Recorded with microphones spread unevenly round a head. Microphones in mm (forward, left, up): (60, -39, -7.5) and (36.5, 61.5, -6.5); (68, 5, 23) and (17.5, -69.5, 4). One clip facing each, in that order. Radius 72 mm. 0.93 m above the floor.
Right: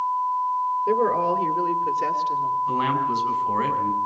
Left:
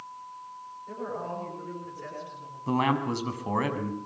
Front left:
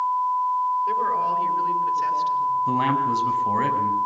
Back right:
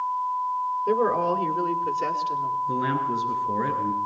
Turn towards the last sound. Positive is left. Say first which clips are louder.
# right 4 dB, front left 4 dB
turn(degrees=55)